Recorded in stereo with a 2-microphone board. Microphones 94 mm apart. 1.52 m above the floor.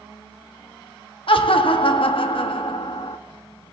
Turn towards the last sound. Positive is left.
turn(degrees=65)  # may be behind; listen again after turning